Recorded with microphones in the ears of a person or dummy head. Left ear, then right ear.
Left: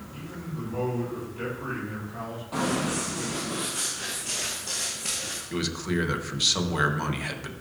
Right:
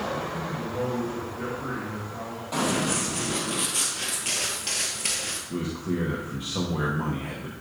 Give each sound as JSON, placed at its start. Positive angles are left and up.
{"t": 0.1, "sound": "a man speaking", "side_deg": 75, "distance_m": 2.5}
{"t": 2.5, "sound": "running footsteps", "side_deg": -25, "distance_m": 2.0}
{"t": 5.5, "sound": "a man speaking", "side_deg": 75, "distance_m": 0.9}